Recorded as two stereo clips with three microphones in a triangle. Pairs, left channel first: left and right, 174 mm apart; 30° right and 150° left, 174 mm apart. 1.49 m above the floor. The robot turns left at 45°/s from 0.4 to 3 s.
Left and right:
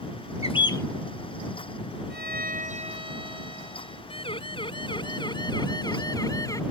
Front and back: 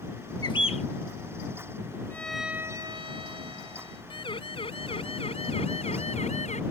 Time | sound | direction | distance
0.4 | a bird | 35° left | ?
2.1 | a violin | 110° right | ?
4.1 | a siren | 30° left | ?